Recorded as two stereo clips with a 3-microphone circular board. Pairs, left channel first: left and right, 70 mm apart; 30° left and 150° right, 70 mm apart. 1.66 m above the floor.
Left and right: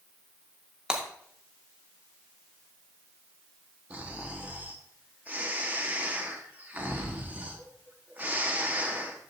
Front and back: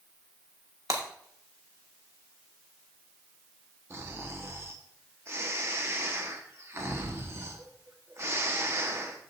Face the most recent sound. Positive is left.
turn(degrees=-140)